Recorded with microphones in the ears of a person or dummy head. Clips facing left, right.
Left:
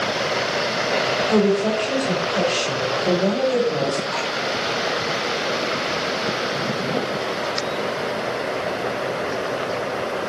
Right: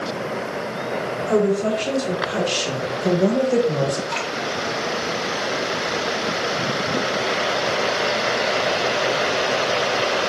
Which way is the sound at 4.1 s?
80° right.